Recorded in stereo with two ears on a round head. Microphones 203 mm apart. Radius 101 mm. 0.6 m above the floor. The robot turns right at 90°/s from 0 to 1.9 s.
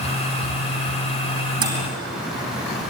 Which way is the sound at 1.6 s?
20° right (ahead or behind).